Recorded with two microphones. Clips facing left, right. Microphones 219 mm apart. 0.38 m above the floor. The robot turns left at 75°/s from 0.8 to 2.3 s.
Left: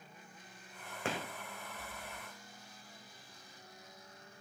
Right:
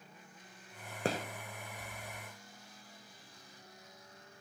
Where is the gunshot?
35° right (ahead or behind), 1.5 m; by 1.2 s 45° right (ahead or behind), 1.5 m.